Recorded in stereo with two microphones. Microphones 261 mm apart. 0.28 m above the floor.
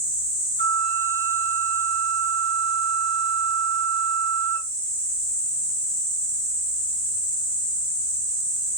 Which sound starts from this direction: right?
A flute, at 0.6 s.